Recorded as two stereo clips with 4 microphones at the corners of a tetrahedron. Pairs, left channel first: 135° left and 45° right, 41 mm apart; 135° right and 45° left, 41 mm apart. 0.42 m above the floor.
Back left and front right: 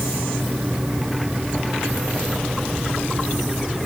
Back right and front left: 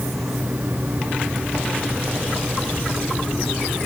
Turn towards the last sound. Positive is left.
No sound to turn to.